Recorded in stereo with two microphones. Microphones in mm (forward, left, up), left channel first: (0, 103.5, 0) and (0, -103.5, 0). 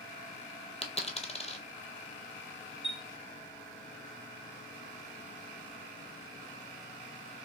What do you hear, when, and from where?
0.8 s a dropped coin: 30° left (ahead or behind), 0.7 m
2.8 s a chime: 25° left (ahead or behind), 2.0 m